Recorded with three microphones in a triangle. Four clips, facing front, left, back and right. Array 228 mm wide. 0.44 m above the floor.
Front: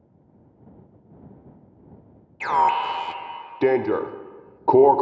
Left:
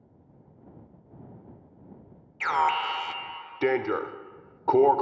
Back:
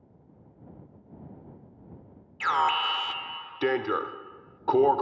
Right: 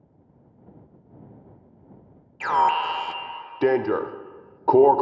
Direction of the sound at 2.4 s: 40° right.